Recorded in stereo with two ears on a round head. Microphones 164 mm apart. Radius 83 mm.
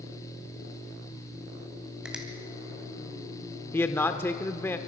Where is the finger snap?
5° right (ahead or behind), 2.5 m.